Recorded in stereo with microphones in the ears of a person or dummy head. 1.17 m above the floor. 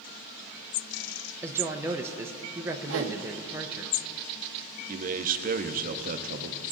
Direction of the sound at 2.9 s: 70° right (ahead or behind).